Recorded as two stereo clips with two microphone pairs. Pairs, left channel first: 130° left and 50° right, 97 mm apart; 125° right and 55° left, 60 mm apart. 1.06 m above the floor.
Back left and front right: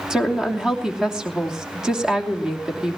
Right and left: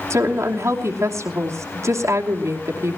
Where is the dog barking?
I don't hear a dog barking.